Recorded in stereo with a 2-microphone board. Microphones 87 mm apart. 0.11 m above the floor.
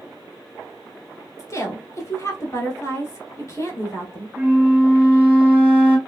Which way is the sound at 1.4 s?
35° left (ahead or behind).